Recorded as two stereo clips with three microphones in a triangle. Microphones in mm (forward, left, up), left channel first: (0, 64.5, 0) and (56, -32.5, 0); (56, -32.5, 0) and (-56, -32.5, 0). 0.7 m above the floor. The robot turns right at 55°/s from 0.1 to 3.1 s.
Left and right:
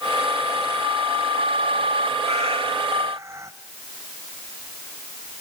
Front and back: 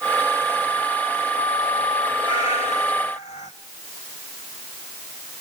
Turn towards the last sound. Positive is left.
turn(degrees=5)